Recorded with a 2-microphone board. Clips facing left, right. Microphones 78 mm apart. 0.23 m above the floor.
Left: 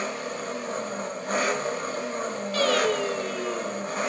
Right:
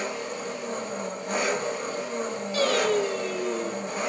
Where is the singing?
15° right (ahead or behind), 0.7 m.